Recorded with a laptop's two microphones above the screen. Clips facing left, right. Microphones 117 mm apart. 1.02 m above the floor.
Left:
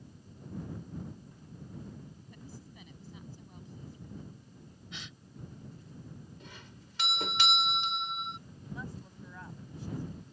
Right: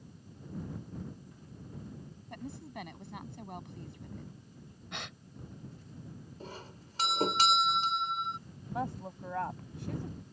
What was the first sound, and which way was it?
A woman speaking, 85° right.